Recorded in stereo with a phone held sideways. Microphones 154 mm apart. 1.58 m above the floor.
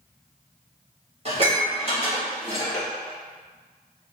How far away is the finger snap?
No finger snap in this recording.